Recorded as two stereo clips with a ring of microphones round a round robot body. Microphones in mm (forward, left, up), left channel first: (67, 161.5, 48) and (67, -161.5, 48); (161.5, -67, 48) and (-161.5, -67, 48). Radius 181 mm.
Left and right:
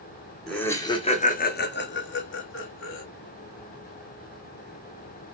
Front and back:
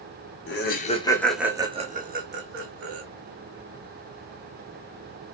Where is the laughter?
5° left, 0.8 m; by 3.0 s 140° left, 1.4 m.